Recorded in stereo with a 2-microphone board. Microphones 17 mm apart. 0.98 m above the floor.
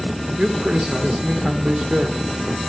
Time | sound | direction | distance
0.4 | a man speaking | 55° right (ahead or behind) | 2.5 m